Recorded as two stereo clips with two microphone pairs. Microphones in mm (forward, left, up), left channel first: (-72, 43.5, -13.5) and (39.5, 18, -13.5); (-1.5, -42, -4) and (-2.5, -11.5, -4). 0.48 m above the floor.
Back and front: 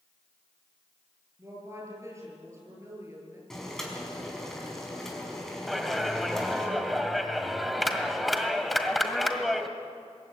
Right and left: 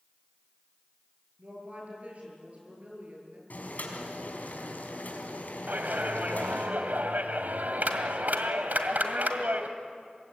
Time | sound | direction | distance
1.4 | a woman speaking | 50° left | 8.5 m
3.5 | boiling | 105° right | 4.5 m
5.7 | a clap | 80° left | 1.9 m